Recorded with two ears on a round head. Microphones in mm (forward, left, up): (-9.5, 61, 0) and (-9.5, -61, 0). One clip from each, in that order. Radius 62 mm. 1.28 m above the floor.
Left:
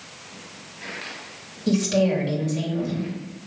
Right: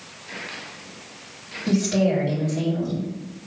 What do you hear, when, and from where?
1.7 s a woman speaking: 35° left (ahead or behind), 3 m